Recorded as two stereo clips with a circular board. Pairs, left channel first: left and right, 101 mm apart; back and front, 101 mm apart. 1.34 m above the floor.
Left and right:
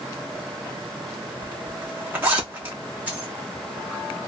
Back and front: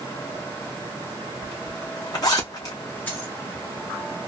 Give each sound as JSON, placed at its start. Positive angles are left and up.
{"t": 1.4, "sound": "a zipper", "azimuth_deg": -150, "distance_m": 1.1}
{"t": 3.1, "sound": "a dropped coin", "azimuth_deg": -135, "distance_m": 1.3}